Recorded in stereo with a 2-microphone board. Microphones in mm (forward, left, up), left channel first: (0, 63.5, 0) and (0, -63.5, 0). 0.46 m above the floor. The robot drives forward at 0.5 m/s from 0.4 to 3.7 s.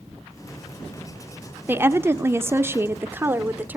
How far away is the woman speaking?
About 0.8 m.